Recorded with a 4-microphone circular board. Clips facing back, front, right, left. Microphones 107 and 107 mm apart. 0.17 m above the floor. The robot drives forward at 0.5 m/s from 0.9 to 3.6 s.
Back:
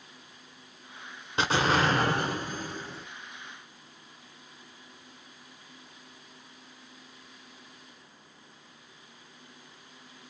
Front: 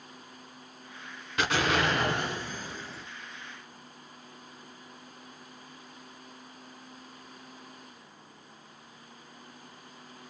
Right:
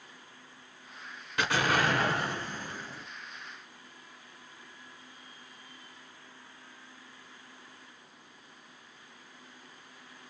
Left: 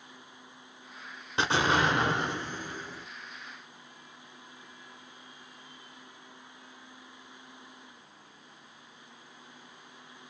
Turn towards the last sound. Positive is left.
turn(degrees=165)